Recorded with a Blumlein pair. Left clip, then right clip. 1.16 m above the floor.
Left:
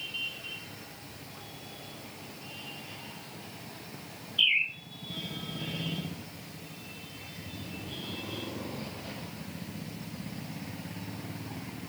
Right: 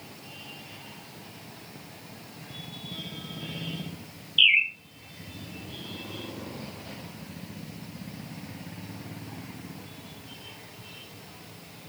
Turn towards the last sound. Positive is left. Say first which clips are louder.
# right 6 dB
turn(degrees=-40)